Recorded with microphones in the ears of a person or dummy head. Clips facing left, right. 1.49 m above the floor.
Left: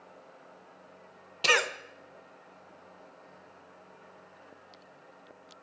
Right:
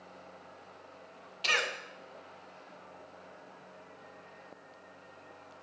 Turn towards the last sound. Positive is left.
turn(degrees=75)  # may be behind; listen again after turning